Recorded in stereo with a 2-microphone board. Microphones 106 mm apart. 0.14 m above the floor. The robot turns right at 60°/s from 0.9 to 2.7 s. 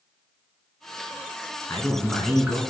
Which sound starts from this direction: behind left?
A man speaking, at 1.7 s.